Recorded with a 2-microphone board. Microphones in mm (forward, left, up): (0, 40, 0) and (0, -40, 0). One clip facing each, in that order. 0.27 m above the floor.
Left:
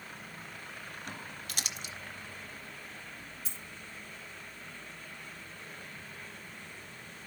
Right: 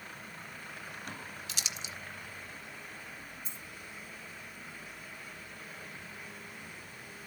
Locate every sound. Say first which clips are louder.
1.5 s crumpling: left 2 dB; 50° left (ahead or behind), 1.2 m
3.5 s a dropped coin: even; 85° left, 1.3 m